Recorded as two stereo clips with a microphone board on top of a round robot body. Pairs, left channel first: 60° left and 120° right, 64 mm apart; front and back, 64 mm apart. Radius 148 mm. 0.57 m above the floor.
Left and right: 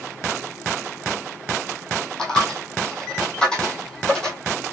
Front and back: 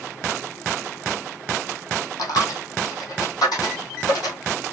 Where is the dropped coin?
20° right, 1.6 m.